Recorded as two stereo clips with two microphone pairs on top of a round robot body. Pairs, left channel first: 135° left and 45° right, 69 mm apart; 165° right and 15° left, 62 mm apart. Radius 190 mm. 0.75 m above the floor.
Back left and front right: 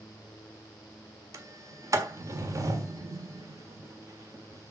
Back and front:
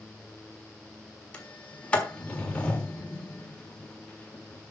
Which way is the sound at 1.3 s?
90° right.